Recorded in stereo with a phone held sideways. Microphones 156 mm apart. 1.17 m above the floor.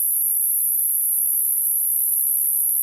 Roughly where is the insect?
Centre.